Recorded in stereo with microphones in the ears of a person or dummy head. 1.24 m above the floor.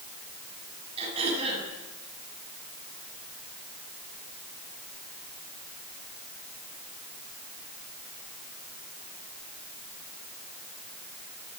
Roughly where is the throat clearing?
Right.